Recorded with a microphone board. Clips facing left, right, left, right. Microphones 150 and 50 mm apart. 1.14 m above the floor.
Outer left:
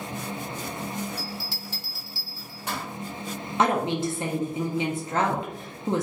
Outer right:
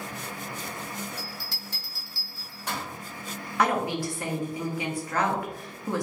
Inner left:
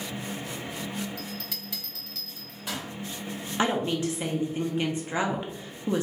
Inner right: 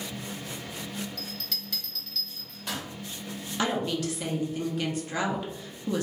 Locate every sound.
1.2 s a bell: 10° left (ahead or behind), 1.3 m
3.6 s a woman speaking: 25° left (ahead or behind), 0.6 m